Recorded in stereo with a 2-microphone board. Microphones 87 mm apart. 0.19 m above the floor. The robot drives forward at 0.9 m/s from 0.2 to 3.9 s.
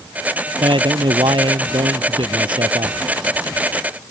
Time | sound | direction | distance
0.6 | a man speaking | 70° right (ahead or behind) | ?